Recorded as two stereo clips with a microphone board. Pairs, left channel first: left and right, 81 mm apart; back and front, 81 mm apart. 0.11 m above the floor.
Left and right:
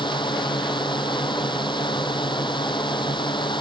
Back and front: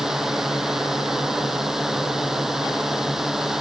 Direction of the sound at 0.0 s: 85° left.